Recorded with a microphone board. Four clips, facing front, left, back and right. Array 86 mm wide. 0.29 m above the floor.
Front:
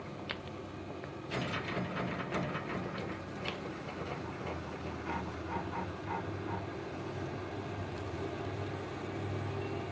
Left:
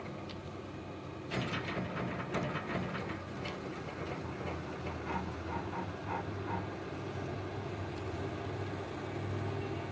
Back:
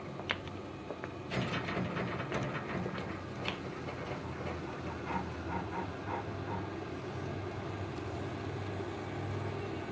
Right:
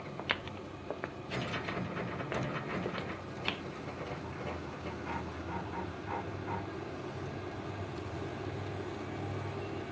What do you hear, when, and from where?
0.2 s footsteps: 105° right; by 3.6 s 100° right